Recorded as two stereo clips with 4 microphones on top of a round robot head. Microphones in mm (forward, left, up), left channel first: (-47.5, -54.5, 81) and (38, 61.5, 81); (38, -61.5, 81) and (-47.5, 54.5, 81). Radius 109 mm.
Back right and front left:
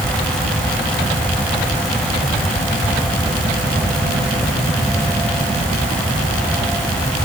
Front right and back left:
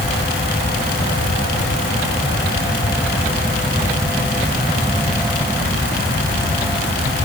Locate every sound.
Only background noise.